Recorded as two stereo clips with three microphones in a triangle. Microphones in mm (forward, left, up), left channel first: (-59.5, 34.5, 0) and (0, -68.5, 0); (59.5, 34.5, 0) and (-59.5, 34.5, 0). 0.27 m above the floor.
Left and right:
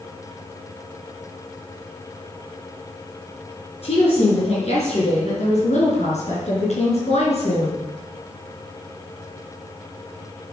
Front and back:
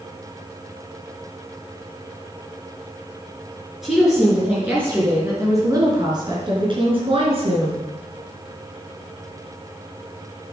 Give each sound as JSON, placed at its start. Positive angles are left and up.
{"t": 3.8, "sound": "a woman speaking", "azimuth_deg": 95, "distance_m": 3.5}